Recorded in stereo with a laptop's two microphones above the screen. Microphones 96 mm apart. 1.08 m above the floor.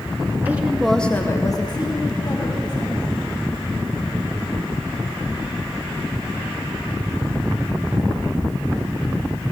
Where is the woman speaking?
20° right (ahead or behind), 1.0 m; by 3.1 s 50° left (ahead or behind), 2 m.